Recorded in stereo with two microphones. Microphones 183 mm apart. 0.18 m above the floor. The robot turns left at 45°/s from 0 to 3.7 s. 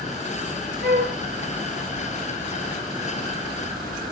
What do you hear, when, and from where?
0.8 s a flute: 70° right (ahead or behind), 3 m; by 1.2 s 65° right (ahead or behind), 3 m